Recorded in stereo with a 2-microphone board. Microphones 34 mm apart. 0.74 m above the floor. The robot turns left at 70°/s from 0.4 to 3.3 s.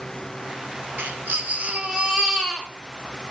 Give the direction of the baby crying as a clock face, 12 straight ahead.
3 o'clock.